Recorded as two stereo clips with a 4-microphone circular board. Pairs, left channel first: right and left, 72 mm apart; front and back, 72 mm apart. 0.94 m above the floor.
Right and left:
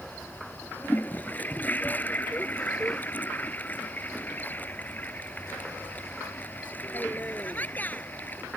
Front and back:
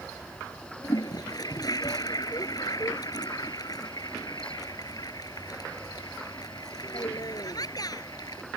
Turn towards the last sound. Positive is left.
turn(degrees=-25)